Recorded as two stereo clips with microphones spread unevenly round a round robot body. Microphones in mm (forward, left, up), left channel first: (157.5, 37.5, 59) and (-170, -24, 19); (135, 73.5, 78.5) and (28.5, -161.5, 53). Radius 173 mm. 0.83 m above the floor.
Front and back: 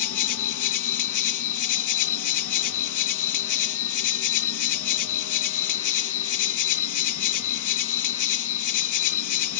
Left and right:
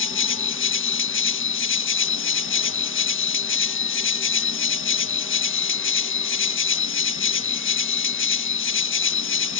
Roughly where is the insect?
Ahead left.